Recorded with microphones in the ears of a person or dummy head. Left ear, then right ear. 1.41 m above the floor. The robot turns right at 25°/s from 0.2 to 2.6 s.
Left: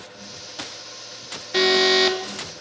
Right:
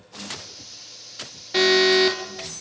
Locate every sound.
1.5 s an alarm: centre (ahead or behind), 2.5 m; by 2.2 s 15° left (ahead or behind), 2.5 m